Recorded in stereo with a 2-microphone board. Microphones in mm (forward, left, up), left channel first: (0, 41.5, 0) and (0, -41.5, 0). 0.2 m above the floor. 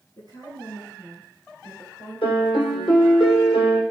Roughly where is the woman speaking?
Left.